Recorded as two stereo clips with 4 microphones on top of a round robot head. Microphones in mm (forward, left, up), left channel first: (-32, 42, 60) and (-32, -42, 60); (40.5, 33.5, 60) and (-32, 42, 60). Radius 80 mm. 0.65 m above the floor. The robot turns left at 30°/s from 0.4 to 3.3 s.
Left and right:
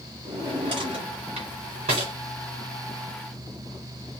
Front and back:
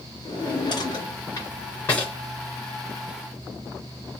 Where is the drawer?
40° right, 1.9 m; by 2.1 s 90° right, 1.9 m.